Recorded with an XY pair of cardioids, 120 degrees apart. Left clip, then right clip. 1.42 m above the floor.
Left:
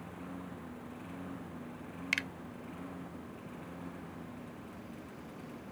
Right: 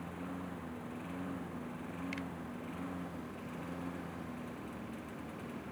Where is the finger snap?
70° left.